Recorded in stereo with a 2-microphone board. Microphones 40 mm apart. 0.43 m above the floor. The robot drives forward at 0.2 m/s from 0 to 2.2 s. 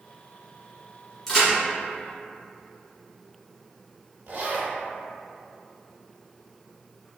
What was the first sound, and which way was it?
A crack, 5° left (ahead or behind).